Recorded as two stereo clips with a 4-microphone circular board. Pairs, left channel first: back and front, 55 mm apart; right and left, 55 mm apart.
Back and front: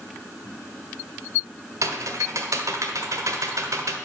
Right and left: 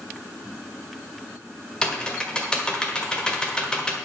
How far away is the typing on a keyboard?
About 1.6 m.